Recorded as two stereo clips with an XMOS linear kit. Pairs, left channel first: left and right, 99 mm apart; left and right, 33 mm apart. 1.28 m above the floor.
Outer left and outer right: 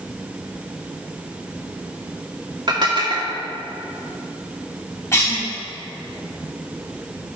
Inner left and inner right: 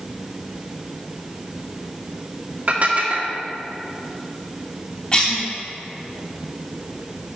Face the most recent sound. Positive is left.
turn(degrees=30)  # may be behind; listen again after turning